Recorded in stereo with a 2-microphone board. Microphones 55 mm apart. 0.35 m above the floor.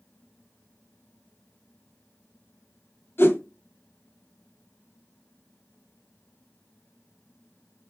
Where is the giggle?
No giggle in this recording.